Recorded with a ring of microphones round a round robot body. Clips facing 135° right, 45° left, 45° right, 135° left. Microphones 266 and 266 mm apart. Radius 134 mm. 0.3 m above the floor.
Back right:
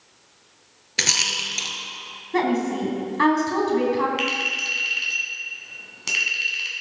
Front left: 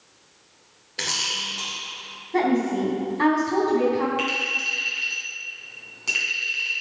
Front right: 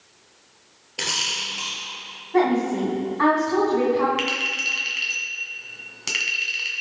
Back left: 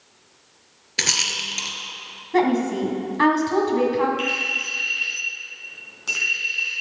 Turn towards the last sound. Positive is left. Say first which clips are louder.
# even, back left 1 dB
turn(degrees=-85)